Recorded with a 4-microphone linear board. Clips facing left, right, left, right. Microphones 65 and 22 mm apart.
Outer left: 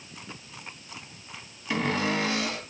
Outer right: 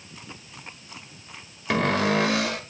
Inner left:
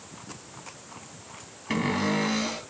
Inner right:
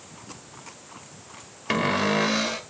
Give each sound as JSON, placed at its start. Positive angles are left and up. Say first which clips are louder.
{"t": 1.7, "sound": "a cupboard door", "louder": "outer right 5 dB, inner right 3 dB", "side_deg": -80, "distance_m": 1.8}